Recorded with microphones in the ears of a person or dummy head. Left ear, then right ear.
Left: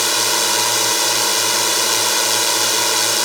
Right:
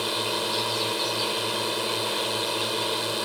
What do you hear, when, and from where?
0.0 s a drone: 60° left (ahead or behind)